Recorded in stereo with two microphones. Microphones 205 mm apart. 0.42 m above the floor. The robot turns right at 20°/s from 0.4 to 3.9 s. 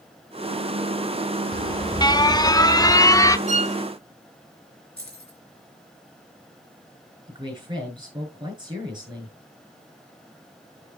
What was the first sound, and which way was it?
An alarm, 20° left (ahead or behind).